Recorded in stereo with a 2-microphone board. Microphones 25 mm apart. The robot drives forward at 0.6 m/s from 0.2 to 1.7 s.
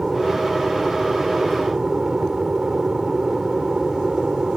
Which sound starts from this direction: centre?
An aircraft, at 0.0 s.